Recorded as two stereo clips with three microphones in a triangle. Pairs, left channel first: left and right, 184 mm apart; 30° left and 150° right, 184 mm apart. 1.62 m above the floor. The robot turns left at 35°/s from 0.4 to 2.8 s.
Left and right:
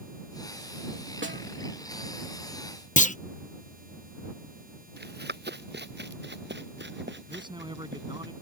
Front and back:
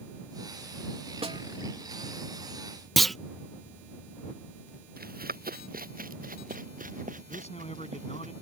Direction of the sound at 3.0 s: 120° left.